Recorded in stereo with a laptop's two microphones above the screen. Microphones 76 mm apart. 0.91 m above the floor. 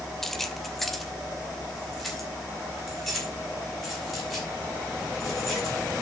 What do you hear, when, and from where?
0.2 s keys jangling: 5° left (ahead or behind), 0.5 m; by 5.8 s centre (ahead or behind), 5 m